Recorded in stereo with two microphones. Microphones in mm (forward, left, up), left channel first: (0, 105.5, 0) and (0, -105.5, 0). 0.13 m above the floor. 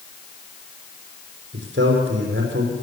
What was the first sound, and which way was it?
A man speaking, 60° right (ahead or behind).